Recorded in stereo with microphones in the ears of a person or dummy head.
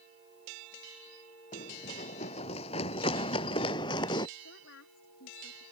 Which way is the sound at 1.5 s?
45° left (ahead or behind).